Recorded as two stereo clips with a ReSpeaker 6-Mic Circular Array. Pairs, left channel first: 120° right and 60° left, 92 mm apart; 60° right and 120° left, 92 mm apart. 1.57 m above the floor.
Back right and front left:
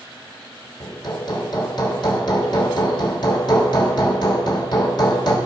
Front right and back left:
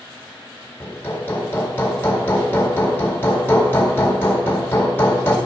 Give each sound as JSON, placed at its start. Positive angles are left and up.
{"t": 0.8, "sound": "hammering", "azimuth_deg": -120, "distance_m": 1.7}